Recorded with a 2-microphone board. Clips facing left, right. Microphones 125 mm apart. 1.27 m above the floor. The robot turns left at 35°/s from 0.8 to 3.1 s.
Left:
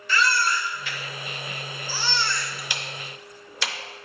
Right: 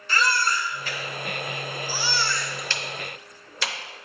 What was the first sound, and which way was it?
A baby crying, 40° right (ahead or behind).